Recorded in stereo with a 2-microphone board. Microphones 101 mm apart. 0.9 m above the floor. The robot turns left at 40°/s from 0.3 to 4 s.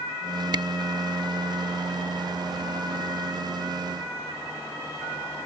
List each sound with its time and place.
0.5 s a camera shutter: 45° right (ahead or behind); by 0.7 s 50° right (ahead or behind)